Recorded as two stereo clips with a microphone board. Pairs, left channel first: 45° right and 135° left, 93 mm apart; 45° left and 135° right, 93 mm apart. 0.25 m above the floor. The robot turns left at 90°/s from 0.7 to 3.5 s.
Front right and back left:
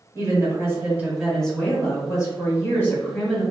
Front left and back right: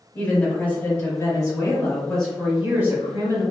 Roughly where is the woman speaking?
Left.